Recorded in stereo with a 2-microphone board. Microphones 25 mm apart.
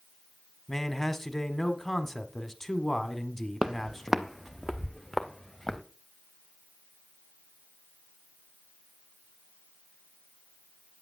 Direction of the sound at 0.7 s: 15° left (ahead or behind).